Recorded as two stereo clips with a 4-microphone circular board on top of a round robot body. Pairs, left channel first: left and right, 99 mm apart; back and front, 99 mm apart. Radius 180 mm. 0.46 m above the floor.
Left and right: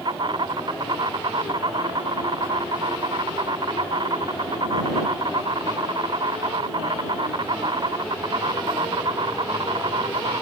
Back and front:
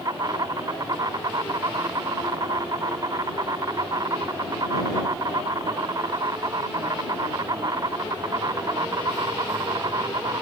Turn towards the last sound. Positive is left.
turn(degrees=-50)